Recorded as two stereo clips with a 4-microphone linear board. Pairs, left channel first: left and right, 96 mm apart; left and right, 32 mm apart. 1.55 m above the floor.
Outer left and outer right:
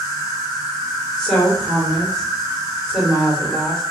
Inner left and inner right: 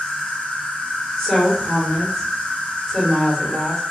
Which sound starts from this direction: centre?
A woman speaking, at 1.2 s.